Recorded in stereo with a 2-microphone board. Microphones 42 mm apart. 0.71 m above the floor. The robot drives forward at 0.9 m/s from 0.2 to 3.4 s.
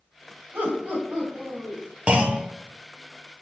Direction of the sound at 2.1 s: 30° right (ahead or behind).